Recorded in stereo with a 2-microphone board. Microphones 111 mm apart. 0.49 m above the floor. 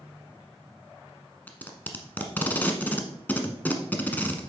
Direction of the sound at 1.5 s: 15° left (ahead or behind).